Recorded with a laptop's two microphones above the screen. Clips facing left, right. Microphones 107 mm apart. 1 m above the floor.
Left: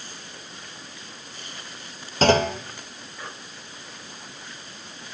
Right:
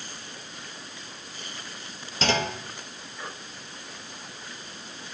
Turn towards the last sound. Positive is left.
turn(degrees=45)  # may be behind; listen again after turning